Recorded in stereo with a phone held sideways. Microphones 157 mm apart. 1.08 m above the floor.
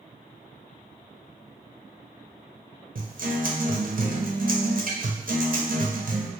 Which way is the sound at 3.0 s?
60° right (ahead or behind).